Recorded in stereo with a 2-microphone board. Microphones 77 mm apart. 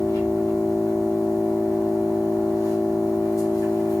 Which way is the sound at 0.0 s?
50° left (ahead or behind).